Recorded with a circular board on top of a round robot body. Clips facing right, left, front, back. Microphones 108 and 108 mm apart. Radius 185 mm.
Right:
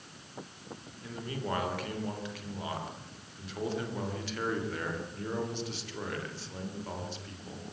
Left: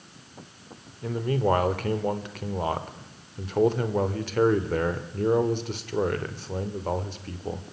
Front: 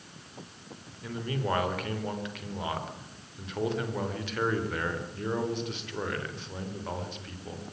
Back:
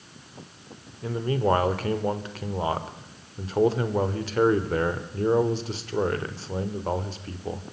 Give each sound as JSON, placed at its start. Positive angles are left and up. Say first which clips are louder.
{"t": 1.0, "sound": "a man speaking", "louder": "left 13 dB, back 8 dB", "azimuth_deg": 125, "distance_m": 2.5}